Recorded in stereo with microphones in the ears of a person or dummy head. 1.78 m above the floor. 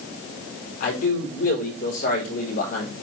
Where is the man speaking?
45° left (ahead or behind), 4.5 m.